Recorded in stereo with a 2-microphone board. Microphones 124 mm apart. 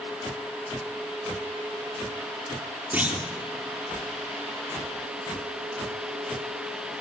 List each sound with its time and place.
2.9 s a clunk: 15° right (ahead or behind), 3.5 m